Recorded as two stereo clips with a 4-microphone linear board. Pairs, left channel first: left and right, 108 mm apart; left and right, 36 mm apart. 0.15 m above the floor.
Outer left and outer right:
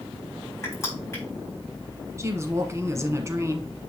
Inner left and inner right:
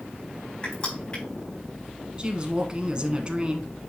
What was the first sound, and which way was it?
Crushing, 30° left (ahead or behind).